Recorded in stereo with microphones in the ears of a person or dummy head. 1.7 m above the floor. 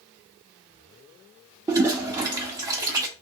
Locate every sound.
1.7 s a toilet flushing: 25° right (ahead or behind), 0.6 m